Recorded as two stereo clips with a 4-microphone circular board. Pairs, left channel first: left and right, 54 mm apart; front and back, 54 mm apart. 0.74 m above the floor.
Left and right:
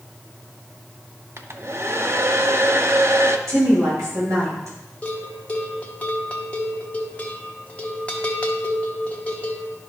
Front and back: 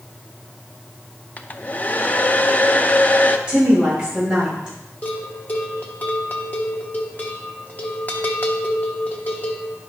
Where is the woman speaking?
105° right, 4.5 m.